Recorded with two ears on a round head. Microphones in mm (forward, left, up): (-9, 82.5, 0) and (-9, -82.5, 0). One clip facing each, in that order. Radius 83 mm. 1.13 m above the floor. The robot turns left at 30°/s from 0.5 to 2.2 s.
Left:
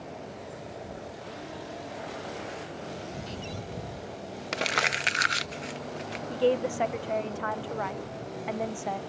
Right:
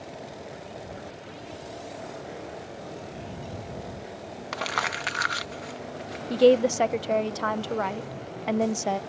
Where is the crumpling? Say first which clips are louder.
Left 1 dB; 25° left (ahead or behind).